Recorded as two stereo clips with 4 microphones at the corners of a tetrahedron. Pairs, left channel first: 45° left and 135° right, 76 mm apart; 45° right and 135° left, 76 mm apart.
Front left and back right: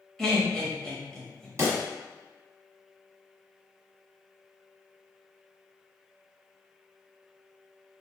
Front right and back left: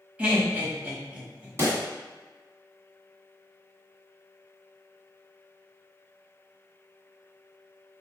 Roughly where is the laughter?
Behind left.